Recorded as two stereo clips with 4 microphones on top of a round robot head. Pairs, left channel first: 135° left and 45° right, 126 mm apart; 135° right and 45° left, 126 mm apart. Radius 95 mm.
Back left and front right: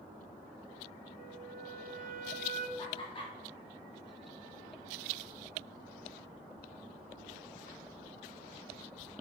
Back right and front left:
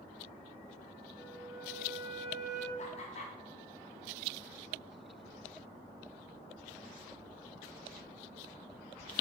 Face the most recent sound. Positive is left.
turn(degrees=-175)